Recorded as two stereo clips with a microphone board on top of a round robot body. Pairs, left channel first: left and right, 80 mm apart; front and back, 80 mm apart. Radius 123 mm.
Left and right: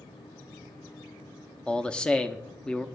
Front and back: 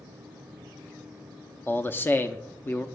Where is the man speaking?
25° left, 0.8 m.